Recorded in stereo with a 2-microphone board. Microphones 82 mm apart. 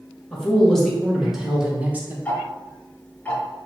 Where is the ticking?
15° left (ahead or behind), 1.1 m.